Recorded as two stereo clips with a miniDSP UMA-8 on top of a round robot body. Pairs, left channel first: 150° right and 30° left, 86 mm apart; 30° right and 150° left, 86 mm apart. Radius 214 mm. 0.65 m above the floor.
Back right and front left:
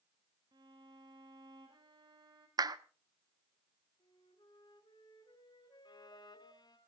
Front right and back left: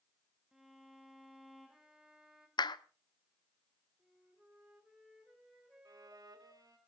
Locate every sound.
0.5 s a violin: 65° left, 0.6 m
2.6 s a clap: 5° right, 1.0 m
4.0 s a flute: 120° right, 5 m
5.8 s a violin: 175° right, 1.6 m